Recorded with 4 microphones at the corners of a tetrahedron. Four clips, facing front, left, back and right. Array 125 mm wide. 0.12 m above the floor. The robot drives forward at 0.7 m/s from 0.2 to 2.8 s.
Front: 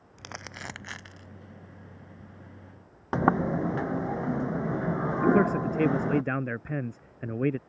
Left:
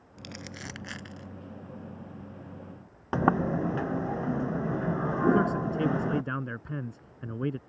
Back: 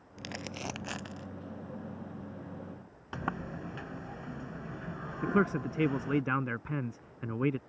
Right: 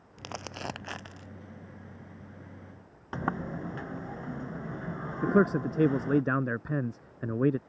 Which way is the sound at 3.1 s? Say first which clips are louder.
Left 8 dB, front 13 dB; 40° left.